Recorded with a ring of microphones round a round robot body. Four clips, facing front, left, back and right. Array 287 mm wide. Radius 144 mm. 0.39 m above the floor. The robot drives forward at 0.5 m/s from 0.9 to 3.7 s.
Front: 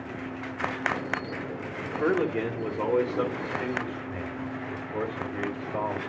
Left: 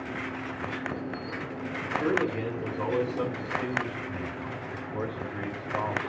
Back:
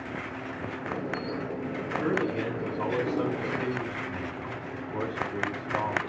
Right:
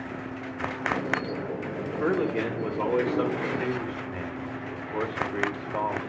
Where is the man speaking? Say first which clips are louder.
Right 1 dB, front 3 dB; 35° right, 1.9 m; by 6.0 s 80° right, 1.5 m.